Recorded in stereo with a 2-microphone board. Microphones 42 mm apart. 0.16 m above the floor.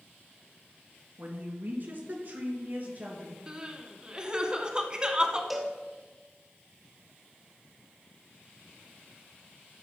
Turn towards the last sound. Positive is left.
turn(degrees=-5)  # may be behind; listen again after turning